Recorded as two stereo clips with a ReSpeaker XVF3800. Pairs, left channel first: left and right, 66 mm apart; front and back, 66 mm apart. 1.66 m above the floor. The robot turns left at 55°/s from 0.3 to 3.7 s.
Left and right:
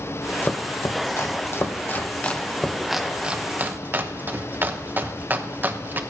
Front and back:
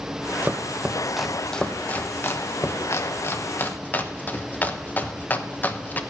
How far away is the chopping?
About 0.9 m.